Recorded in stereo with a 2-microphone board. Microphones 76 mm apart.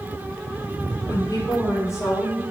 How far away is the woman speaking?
About 5 m.